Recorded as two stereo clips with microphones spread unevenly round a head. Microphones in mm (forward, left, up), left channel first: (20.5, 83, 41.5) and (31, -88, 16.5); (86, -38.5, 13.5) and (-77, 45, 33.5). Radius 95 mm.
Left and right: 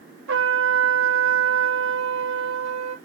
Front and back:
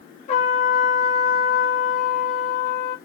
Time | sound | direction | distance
0.3 | a trumpet | 85° right | 0.7 m